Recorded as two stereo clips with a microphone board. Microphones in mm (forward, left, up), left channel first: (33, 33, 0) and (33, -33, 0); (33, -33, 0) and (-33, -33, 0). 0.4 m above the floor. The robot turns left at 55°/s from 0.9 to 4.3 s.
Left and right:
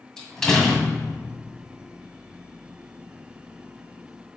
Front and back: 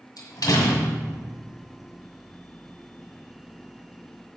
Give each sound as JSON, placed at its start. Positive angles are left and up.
{"t": 0.2, "sound": "a door slam", "azimuth_deg": 5, "distance_m": 1.9}